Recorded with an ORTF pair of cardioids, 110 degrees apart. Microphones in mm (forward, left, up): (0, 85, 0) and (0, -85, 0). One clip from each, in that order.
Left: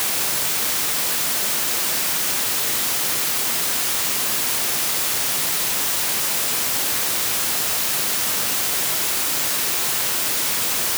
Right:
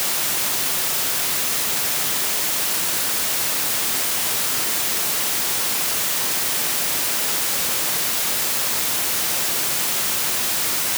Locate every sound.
Only background noise.